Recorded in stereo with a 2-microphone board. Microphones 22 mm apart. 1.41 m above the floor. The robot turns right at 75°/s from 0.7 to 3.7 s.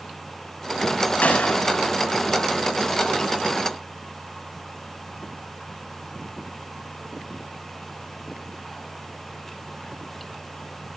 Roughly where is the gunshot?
Left.